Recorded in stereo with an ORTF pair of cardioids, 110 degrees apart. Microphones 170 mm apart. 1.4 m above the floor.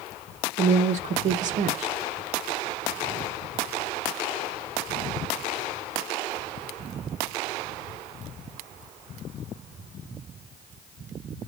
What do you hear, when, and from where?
0.6 s a woman speaking: 45° right, 0.5 m